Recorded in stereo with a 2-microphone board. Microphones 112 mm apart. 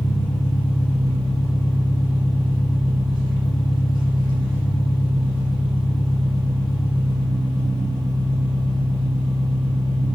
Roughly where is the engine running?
Left.